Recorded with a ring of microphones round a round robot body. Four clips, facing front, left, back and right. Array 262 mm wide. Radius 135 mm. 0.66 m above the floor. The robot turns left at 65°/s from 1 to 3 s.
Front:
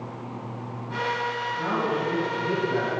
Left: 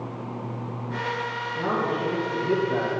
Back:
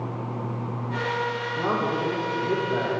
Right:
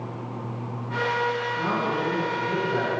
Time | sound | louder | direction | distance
1.6 | a man speaking | even, back 2 dB | 150° left | 6 m